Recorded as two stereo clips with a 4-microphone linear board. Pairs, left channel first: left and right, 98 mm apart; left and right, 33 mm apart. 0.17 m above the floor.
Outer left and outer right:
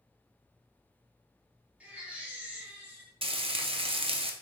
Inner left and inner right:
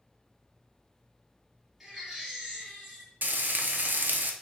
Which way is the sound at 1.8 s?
15° right (ahead or behind).